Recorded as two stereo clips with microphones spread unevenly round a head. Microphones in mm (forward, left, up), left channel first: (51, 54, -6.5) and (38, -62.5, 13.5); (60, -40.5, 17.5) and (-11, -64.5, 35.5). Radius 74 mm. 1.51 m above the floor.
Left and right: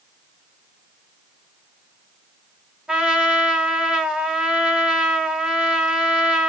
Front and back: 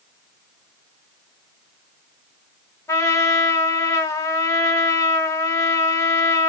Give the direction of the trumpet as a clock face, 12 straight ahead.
1 o'clock.